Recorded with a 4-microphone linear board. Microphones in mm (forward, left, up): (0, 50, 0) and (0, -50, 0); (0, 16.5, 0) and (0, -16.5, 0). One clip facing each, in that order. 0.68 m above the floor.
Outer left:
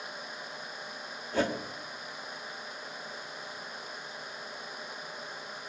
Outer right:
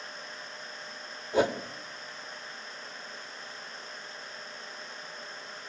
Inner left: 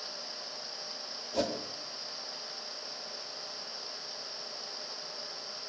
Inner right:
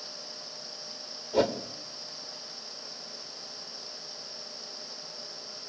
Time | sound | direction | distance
1.3 | a whoosh | 15° right (ahead or behind) | 1.4 m